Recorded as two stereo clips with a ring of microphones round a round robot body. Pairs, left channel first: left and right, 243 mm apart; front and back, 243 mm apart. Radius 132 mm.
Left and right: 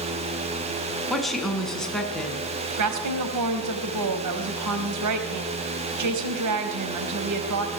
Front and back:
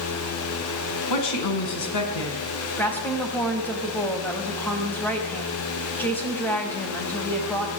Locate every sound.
1.1 s a woman speaking: straight ahead, 5.5 m; by 2.4 s 5° left, 6 m
2.8 s a woman speaking: 85° right, 4 m